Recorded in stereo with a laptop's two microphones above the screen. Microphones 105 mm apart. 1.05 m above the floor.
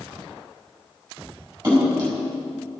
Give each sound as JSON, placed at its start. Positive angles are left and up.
{"t": 1.6, "sound": "a splash", "side_deg": -25, "distance_m": 5.0}